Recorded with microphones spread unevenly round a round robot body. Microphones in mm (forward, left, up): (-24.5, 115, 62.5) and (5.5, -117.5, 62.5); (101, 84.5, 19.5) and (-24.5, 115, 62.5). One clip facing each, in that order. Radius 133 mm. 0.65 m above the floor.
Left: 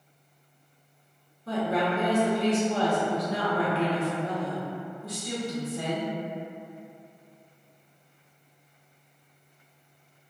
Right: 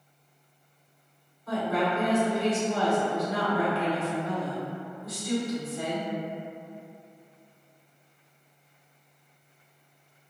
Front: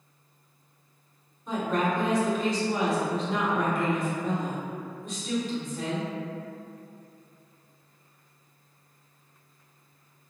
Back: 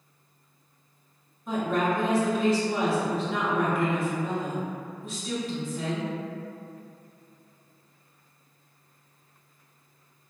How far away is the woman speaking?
About 1.3 m.